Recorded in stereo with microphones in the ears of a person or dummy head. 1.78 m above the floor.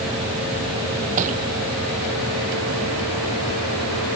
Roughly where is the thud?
Right.